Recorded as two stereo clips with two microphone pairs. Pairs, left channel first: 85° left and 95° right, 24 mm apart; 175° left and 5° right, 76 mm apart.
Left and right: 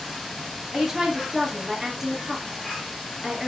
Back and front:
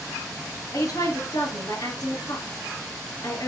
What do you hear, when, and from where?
0.7 s a woman speaking: 165° right, 3.5 m